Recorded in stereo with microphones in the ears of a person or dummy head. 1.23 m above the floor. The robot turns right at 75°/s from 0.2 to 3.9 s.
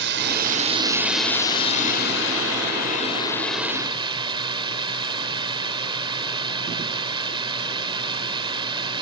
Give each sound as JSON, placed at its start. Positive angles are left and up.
{"t": 0.0, "sound": "a drone", "azimuth_deg": -70}